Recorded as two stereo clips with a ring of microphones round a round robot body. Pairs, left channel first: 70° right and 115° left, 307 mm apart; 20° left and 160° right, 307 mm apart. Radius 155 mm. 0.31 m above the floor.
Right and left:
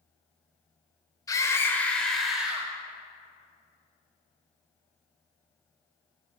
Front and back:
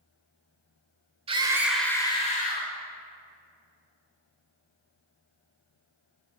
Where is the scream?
125° right, 1.0 m; by 2.7 s 30° left, 1.2 m.